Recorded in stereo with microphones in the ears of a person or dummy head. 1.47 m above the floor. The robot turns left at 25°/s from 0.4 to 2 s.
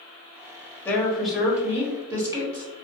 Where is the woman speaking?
10° left (ahead or behind), 0.9 m; by 2.6 s 15° right (ahead or behind), 0.9 m.